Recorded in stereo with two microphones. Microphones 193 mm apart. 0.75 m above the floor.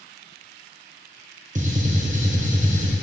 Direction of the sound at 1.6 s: 40° right (ahead or behind).